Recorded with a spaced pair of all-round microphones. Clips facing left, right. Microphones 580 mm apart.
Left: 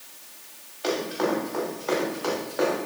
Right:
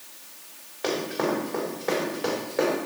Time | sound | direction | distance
0.8 | running footsteps | 75° right (ahead or behind) | 5 m